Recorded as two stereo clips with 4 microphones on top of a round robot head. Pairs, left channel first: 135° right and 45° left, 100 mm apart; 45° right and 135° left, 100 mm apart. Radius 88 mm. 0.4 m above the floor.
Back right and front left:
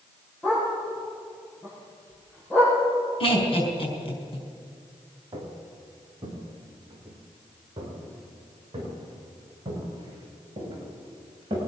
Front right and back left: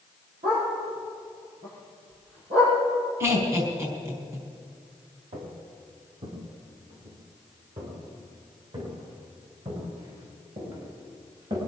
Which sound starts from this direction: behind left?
A dog barking, at 0.4 s.